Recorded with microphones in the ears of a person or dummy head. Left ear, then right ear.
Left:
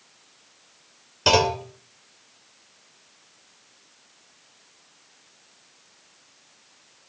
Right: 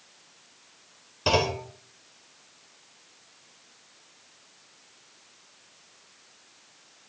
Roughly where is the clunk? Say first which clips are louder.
Left 5 dB; left.